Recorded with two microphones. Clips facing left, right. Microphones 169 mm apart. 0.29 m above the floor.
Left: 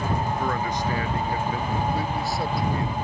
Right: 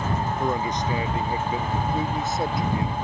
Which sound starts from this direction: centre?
A man speaking, at 0.4 s.